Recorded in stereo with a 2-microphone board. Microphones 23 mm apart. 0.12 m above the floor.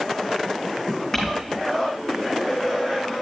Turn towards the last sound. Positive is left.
turn(degrees=20)  # may be behind; listen again after turning